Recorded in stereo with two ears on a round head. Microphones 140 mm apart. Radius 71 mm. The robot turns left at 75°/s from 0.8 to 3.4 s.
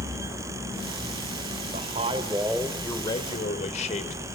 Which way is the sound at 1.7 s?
115° right.